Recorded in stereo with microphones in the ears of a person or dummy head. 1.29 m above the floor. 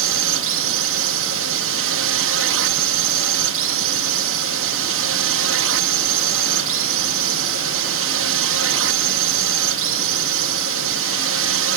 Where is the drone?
60° right (ahead or behind).